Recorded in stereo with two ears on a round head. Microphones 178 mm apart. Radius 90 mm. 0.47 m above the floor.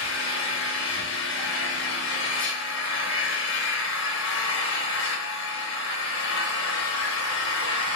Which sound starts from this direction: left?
An engine running, at 0.0 s.